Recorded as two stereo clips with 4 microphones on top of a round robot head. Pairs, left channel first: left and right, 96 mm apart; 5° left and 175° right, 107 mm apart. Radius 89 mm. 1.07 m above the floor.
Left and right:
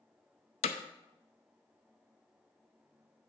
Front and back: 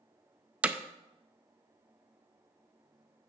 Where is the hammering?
110° left, 0.5 m.